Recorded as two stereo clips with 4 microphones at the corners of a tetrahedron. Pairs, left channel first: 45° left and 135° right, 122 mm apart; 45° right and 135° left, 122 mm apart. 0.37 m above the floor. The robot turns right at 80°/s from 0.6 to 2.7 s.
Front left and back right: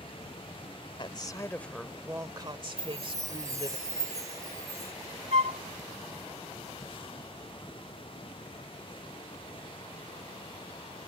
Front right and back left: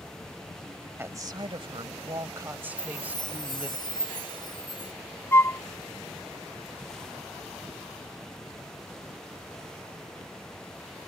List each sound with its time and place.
1.0 s a woman speaking: 70° left; by 3.8 s 155° right
2.8 s a chime: 80° right
5.3 s a flute: 110° right